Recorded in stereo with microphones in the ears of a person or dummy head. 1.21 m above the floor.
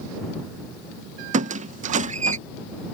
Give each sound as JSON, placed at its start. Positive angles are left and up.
{"t": 1.3, "sound": "a squeak", "side_deg": -45}